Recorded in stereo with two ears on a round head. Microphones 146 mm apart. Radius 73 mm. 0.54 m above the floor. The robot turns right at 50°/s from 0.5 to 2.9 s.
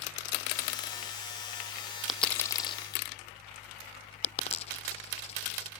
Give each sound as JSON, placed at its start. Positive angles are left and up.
{"t": 2.1, "sound": "a dropped coin", "side_deg": 0}